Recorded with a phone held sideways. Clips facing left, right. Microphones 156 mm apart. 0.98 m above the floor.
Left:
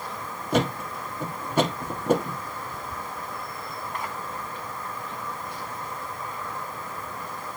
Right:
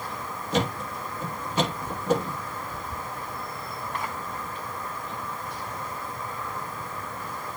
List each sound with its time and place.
0.5 s a thud: 55° left (ahead or behind), 2.5 m